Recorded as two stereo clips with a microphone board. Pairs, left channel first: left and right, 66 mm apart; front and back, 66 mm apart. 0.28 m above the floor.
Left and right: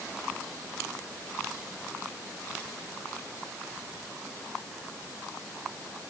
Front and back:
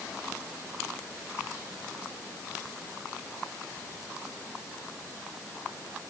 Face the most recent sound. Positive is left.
No sound to turn to.